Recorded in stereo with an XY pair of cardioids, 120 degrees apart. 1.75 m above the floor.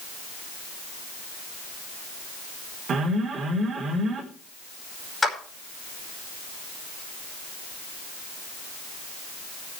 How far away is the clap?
About 5 m.